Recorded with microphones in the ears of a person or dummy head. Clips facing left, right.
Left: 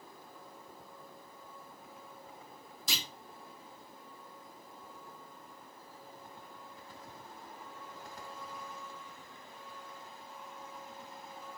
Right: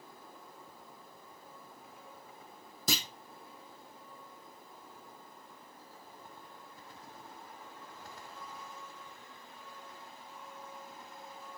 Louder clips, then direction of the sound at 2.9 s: Right 7 dB; 50° right (ahead or behind).